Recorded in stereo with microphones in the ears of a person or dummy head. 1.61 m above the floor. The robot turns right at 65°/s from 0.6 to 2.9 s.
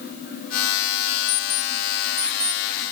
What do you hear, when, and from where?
1.3 s an alarm clock: 60° left (ahead or behind), 5.5 m; by 2.6 s 25° right (ahead or behind), 5.5 m